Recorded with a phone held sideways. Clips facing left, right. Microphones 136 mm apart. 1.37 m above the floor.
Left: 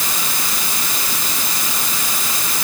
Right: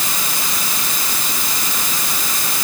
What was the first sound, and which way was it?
Only background noise.